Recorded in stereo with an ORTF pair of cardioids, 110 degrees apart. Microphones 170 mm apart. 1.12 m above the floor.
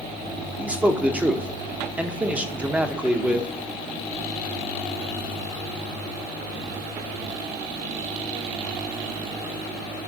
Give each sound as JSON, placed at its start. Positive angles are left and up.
{"t": 0.6, "sound": "a man speaking", "azimuth_deg": -10, "distance_m": 0.9}